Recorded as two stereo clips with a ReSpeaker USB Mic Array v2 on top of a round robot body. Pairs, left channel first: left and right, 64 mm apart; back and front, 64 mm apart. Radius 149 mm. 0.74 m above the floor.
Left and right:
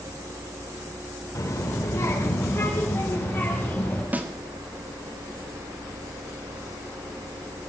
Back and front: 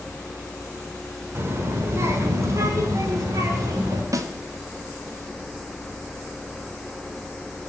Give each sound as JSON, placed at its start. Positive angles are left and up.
{"t": 1.4, "sound": "a child speaking", "azimuth_deg": 55, "distance_m": 2.5}
{"t": 4.1, "sound": "a snare drum", "azimuth_deg": -25, "distance_m": 1.7}